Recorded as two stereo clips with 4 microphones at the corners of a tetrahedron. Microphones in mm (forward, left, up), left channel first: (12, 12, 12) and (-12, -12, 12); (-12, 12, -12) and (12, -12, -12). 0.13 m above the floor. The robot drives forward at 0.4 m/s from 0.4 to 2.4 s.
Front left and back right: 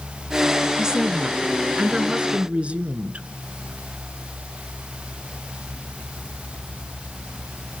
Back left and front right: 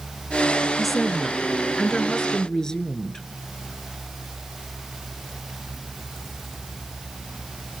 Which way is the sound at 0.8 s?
130° right.